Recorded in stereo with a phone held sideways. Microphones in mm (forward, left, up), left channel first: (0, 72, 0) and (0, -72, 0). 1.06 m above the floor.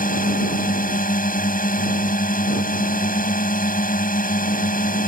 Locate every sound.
0.0 s a drone: 75° left (ahead or behind)